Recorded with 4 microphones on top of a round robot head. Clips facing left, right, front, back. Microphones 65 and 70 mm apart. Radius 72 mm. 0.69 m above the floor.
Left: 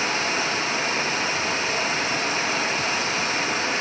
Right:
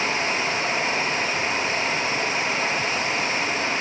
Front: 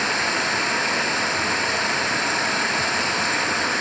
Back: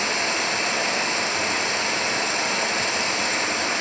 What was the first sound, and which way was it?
Running water, 45° left.